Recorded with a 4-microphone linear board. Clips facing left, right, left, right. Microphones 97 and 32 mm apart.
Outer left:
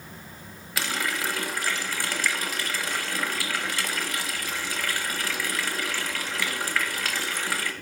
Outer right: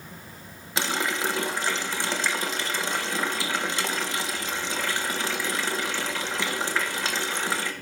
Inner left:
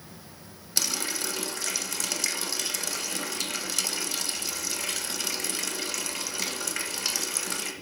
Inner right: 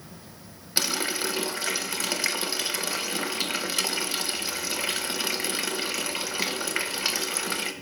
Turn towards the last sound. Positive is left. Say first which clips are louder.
# outer right 2 dB, inner right 3 dB
turn(degrees=-25)  # may be behind; listen again after turning